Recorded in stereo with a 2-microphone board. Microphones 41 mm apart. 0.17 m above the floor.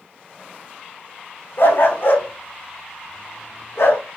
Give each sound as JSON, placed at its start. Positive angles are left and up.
{"t": 1.6, "sound": "a dog barking", "side_deg": 60, "distance_m": 5.5}